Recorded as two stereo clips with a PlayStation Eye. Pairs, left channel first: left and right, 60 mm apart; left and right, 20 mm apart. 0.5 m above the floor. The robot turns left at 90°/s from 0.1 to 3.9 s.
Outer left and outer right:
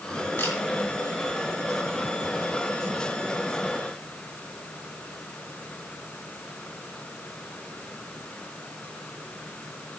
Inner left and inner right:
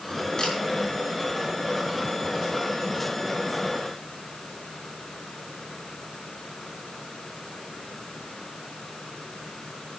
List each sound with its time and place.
0.4 s a camera shutter: 35° left (ahead or behind), 4.5 m; by 0.6 s 50° left (ahead or behind), 4.5 m